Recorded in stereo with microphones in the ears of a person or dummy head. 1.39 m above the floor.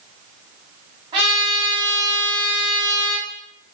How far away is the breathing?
No breathing in this recording.